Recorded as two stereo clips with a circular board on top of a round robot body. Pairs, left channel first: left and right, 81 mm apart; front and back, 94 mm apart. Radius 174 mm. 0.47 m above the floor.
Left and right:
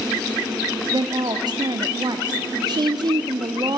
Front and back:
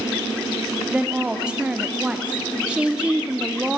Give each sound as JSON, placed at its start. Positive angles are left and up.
{"t": 0.9, "sound": "a woman speaking", "azimuth_deg": -100, "distance_m": 1.2}